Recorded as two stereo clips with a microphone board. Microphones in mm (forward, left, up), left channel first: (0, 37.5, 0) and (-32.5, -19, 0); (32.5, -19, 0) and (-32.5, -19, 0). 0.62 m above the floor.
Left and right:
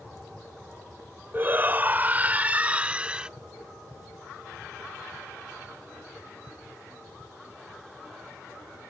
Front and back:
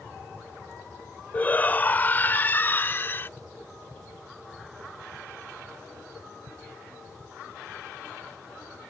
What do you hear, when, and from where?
1.3 s a shout: 65° right; by 3.3 s 45° right